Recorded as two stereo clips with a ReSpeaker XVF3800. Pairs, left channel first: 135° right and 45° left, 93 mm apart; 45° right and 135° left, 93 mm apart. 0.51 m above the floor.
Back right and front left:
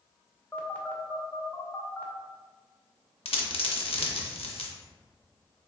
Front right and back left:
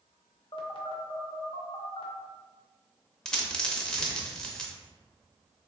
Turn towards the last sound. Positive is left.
turn(degrees=-125)